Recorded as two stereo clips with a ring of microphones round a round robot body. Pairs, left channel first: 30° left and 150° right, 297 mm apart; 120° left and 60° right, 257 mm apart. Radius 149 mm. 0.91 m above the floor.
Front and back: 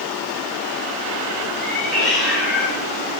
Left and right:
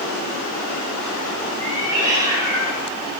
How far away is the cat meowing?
About 3 m.